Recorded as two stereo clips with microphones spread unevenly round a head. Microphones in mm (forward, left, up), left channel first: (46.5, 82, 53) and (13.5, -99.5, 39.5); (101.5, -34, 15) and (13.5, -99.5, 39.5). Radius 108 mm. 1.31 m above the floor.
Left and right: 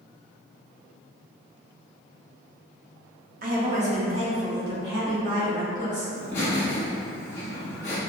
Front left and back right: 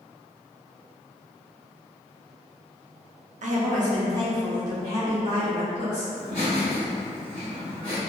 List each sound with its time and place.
3.4 s a woman speaking: 140° right, 0.7 m; by 6.0 s 170° right, 2.5 m
6.1 s laughter: 155° left, 0.6 m